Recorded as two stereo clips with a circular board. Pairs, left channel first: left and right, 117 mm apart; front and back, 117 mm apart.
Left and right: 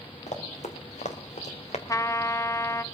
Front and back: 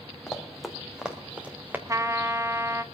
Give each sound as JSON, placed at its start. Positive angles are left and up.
{"t": 0.3, "sound": "running footsteps", "azimuth_deg": 90, "distance_m": 2.5}
{"t": 1.9, "sound": "a trumpet", "azimuth_deg": 135, "distance_m": 0.6}